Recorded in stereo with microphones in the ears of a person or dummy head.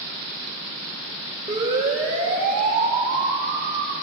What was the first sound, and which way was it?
A siren, 30° right (ahead or behind).